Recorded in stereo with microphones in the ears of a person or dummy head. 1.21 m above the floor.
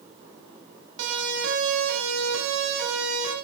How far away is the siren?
About 9 m.